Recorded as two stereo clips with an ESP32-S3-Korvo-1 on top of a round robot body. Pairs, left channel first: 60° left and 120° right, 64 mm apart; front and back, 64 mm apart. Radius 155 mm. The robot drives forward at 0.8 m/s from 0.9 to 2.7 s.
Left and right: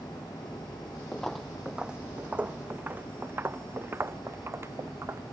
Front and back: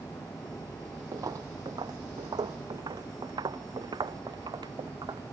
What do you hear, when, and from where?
1.1 s footsteps: 140° left; by 5.2 s 170° right